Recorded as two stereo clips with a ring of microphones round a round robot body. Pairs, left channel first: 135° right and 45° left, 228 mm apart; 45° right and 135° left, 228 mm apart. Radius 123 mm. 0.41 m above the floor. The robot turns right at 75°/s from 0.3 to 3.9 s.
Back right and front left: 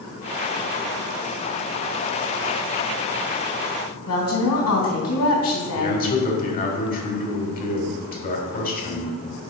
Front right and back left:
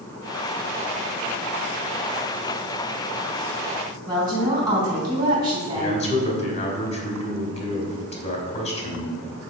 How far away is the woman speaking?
About 3.5 m.